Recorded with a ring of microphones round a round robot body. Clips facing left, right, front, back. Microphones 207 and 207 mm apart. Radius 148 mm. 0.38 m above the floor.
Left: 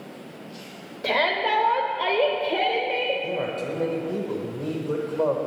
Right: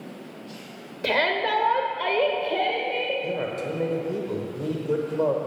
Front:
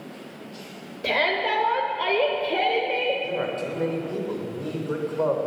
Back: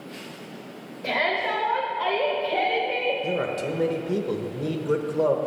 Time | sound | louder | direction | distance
1.0 | a shout | even, front 2 dB | 45° right | 1.2 m
3.2 | a man speaking | even, back 1 dB | 165° right | 1.0 m